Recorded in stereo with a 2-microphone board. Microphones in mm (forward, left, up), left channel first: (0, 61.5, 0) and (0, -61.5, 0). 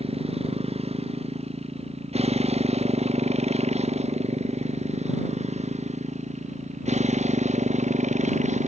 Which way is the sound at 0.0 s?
50° right (ahead or behind).